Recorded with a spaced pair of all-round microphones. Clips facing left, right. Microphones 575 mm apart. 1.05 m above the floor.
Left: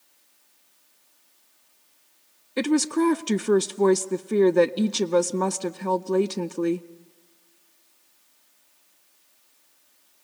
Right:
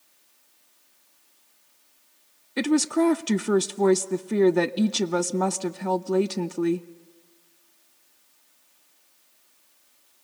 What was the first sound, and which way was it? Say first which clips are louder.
A woman speaking: even; 5° right (ahead or behind).